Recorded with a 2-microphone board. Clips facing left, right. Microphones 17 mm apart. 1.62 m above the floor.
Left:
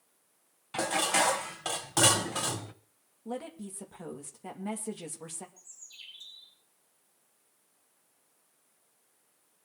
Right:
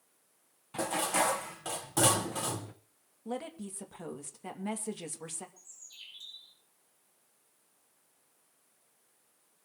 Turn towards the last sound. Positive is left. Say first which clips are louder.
# left 1 dB
turn(degrees=-5)  # may be behind; listen again after turning